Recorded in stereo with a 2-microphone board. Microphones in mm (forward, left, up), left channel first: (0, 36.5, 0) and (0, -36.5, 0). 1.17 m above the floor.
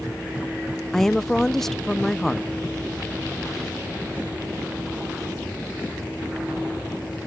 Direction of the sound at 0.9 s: 5° left (ahead or behind).